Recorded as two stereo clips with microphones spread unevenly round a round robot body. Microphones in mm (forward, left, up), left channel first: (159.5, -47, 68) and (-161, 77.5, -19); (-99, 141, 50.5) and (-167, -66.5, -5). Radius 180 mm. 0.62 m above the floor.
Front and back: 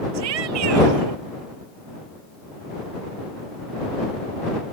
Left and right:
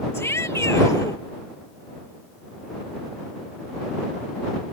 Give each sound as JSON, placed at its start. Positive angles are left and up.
{"t": 0.1, "sound": "a shout", "azimuth_deg": 150}